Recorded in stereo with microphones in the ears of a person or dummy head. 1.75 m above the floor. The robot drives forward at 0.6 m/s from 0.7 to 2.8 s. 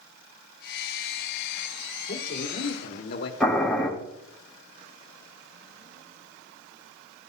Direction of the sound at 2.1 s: 45° left (ahead or behind).